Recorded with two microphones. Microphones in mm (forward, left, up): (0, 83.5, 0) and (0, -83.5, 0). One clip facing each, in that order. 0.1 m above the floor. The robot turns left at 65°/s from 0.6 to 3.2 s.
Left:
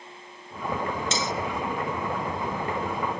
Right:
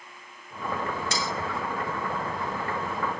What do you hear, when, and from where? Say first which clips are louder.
1.1 s cutlery clinking: left 2 dB; 20° left (ahead or behind), 0.8 m